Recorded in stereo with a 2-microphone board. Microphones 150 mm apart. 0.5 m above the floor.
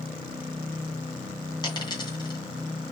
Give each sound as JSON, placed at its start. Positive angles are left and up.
{"t": 1.6, "sound": "a dropped coin", "side_deg": 30, "distance_m": 2.5}